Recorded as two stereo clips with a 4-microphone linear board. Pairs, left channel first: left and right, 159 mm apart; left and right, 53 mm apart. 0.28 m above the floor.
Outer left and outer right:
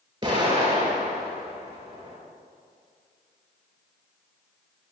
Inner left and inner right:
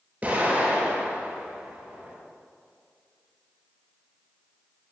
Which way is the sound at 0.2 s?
30° right (ahead or behind).